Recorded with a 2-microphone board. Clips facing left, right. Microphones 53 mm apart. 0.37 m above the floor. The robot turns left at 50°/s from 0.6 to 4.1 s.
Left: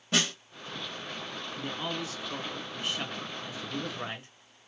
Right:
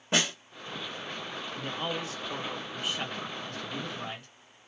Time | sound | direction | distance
0.1 | a snare drum | 25° right (ahead or behind) | 1.5 m
1.6 | a man speaking | 95° right | 1.9 m